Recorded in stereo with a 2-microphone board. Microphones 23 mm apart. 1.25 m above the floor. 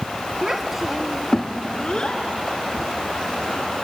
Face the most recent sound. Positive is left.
turn(degrees=60)  # may be behind; listen again after turning